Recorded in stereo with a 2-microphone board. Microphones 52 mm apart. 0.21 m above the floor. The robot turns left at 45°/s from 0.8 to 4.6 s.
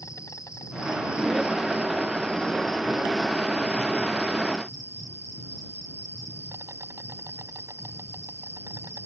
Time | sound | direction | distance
0.0 | an insect | 95° left | ?